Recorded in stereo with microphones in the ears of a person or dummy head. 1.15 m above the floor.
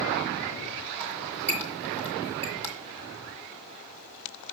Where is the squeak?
5° right (ahead or behind), 1.5 m.